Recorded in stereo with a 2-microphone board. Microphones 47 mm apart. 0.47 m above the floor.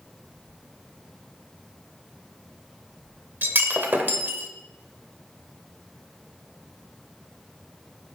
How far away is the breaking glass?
About 1.2 m.